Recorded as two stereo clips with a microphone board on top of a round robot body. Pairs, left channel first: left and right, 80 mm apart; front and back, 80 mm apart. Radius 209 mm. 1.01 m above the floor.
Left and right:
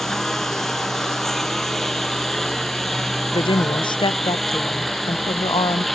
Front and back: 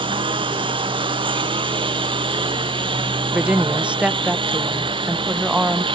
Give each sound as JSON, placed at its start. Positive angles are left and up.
{"t": 0.0, "sound": "a lawn mower", "azimuth_deg": 175}
{"t": 3.3, "sound": "a woman speaking", "azimuth_deg": 105}